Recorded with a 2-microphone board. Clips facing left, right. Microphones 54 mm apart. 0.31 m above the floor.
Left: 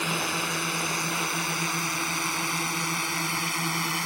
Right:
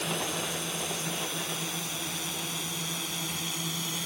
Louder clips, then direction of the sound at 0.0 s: Left 4 dB; 60° left (ahead or behind).